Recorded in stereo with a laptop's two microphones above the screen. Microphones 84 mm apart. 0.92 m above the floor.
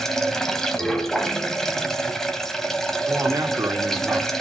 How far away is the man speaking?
About 1.6 m.